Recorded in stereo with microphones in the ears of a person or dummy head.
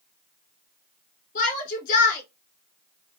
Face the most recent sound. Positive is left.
turn(degrees=35)  # may be behind; listen again after turning